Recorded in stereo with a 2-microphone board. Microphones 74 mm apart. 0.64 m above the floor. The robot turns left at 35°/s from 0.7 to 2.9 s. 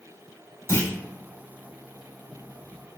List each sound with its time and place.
0.7 s a clunk: 40° left (ahead or behind), 1.1 m; by 0.9 s 30° left (ahead or behind), 1.1 m